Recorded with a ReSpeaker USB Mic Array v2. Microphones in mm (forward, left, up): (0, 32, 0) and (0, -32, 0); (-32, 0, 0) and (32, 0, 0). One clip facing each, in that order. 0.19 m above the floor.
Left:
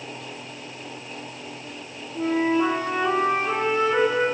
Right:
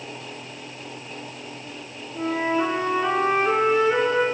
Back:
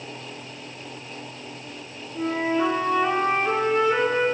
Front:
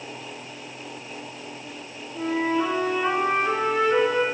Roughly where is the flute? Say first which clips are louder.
Left 2 dB, even; right.